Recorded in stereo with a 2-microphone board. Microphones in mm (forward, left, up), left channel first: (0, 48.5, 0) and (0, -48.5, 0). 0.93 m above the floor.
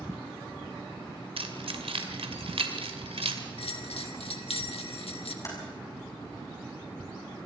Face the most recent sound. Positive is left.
turn(degrees=35)  # may be behind; listen again after turning